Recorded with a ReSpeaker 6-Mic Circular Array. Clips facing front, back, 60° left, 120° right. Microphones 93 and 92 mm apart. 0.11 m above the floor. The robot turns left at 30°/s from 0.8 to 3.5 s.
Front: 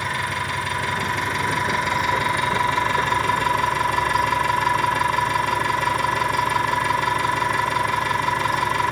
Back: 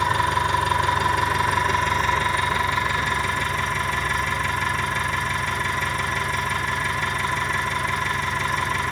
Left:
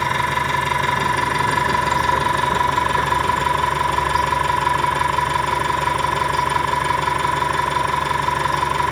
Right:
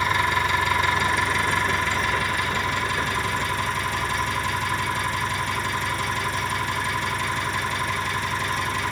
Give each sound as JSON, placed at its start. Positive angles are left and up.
{"t": 0.0, "sound": "an engine running", "azimuth_deg": 115, "distance_m": 7.0}